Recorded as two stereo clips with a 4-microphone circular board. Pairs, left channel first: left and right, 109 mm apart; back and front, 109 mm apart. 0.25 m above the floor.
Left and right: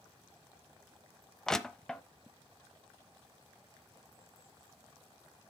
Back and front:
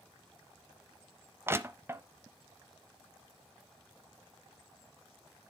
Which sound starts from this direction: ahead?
Crushing, at 1.5 s.